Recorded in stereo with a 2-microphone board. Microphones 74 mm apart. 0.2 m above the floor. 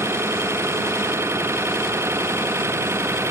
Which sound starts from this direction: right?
An engine running, at 0.0 s.